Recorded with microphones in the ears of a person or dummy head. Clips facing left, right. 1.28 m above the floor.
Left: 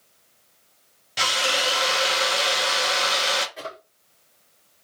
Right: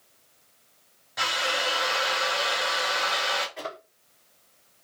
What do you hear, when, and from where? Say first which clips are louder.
1.2 s a drill: left 3 dB; 30° left (ahead or behind), 0.5 m
3.6 s a drawer: even; centre (ahead or behind), 1.6 m